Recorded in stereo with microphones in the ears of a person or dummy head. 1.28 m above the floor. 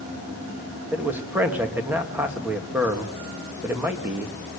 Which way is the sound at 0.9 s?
5° right (ahead or behind).